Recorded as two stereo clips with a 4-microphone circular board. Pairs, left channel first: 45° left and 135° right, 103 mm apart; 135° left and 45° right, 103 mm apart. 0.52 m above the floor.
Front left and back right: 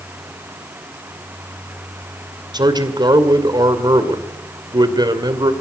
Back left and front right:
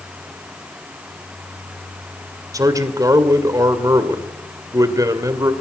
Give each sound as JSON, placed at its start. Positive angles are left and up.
{"t": 2.5, "sound": "a man speaking", "azimuth_deg": -95, "distance_m": 2.5}